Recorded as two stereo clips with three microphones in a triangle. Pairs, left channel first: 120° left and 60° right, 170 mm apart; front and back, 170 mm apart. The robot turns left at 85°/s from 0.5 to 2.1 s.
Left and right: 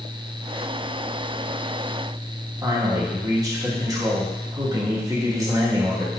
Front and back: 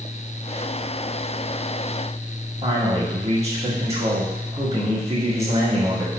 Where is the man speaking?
130° right, 2 m.